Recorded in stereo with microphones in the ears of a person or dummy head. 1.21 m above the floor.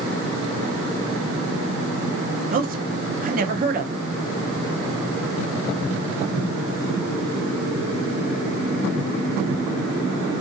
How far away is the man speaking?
About 0.8 m.